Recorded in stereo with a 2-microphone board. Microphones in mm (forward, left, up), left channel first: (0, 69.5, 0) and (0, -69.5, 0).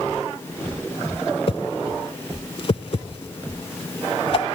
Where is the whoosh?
45° left (ahead or behind), 0.5 m.